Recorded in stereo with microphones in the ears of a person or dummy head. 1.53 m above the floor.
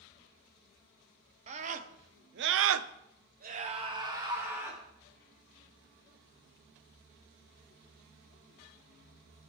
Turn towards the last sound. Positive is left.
turn(degrees=-10)  # may be behind; listen again after turning